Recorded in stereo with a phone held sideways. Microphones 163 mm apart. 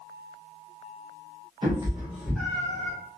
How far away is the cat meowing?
About 0.8 m.